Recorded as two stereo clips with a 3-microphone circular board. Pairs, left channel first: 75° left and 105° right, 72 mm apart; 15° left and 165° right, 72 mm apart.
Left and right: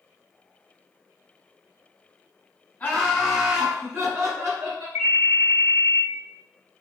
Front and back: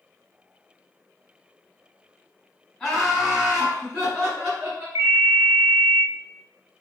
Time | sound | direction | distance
2.8 | laughter | 85° left | 1.4 m
5.0 | a ringtone | 135° right | 1.4 m